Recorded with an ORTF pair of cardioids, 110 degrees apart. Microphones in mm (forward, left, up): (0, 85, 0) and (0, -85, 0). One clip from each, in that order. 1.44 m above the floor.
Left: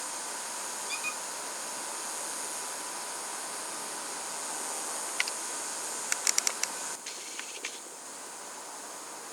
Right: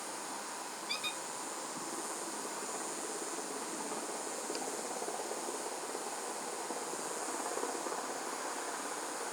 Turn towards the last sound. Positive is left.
turn(degrees=-15)